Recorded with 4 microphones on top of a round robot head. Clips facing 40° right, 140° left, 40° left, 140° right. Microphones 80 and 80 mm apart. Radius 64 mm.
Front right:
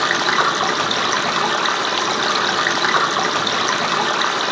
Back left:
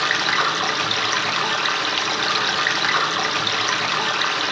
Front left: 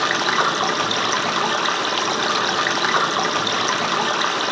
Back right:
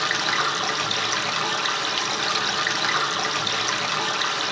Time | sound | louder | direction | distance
0.0 | running water | front right 4 dB, front left 5 dB | 10° left | 0.9 m